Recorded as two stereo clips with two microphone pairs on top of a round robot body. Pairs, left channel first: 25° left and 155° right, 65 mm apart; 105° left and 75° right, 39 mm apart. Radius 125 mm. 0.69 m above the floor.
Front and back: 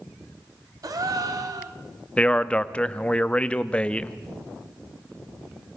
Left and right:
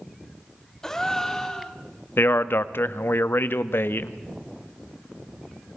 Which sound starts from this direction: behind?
A gasp, at 0.8 s.